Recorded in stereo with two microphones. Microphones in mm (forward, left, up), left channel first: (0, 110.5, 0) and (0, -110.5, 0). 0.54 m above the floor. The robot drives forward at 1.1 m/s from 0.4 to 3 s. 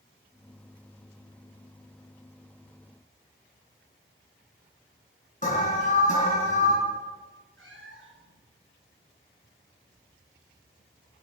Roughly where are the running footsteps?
I don't hear running footsteps.